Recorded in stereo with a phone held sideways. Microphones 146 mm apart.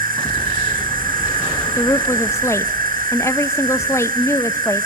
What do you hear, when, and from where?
0.0 s an insect: 75° right (ahead or behind), 1.4 m
1.8 s a woman speaking: 20° left (ahead or behind), 0.8 m